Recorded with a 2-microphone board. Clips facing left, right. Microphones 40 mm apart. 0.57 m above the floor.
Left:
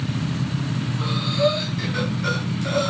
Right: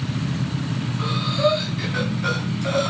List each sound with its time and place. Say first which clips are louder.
1.0 s breathing: even; 20° right (ahead or behind), 2.5 m